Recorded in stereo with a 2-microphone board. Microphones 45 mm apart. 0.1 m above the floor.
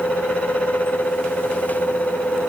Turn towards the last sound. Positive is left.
No sound to turn to.